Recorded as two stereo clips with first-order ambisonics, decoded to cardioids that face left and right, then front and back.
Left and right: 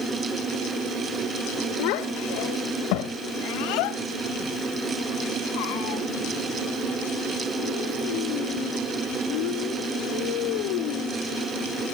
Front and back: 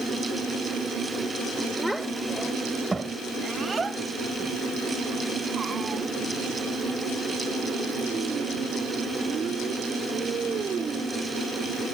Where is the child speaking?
90° left; by 11.2 s 115° left.